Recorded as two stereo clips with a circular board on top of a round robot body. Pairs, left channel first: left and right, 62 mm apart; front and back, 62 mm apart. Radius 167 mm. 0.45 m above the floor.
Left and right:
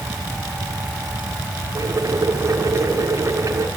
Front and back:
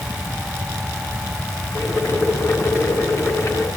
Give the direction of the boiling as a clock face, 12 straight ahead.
2 o'clock.